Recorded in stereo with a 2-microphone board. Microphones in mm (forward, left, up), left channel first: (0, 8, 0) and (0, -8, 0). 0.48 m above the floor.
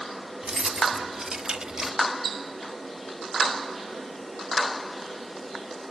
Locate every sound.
0.4 s keys jangling: 80° right, 2.5 m; by 2.0 s 35° right (ahead or behind), 1.4 m